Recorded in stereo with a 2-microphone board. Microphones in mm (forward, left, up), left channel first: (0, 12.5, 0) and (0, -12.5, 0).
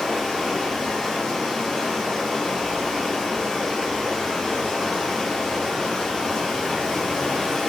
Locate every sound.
0.0 s running water: 20° left (ahead or behind), 1.3 m